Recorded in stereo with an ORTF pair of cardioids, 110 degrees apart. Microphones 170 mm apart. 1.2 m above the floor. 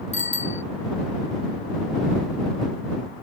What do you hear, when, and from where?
0.1 s a bicycle bell: 45° left